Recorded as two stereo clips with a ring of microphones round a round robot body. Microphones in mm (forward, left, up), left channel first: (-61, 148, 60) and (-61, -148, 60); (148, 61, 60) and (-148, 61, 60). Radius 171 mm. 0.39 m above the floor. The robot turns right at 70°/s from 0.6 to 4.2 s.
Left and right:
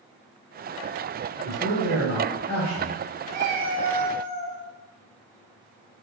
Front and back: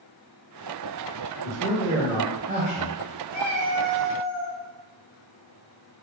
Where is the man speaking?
70° left, 1.0 m; by 3.0 s straight behind, 1.0 m.